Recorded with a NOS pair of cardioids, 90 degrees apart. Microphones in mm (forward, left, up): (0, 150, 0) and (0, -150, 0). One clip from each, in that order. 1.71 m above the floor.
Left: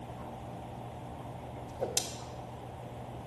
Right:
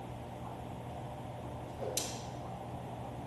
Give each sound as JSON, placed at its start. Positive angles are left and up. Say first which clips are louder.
{"t": 1.7, "sound": "a whoosh", "louder": "left 5 dB", "azimuth_deg": 40, "distance_m": 0.9}